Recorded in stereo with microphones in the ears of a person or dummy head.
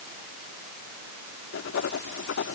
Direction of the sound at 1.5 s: 60° left (ahead or behind).